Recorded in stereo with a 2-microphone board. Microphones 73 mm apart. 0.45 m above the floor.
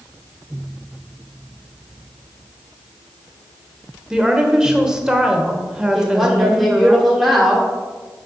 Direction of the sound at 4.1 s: 10° right (ahead or behind).